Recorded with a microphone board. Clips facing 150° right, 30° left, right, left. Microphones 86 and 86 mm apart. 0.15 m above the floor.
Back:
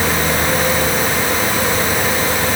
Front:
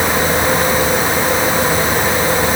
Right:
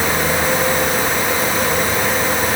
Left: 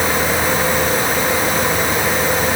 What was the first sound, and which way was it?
Only background noise.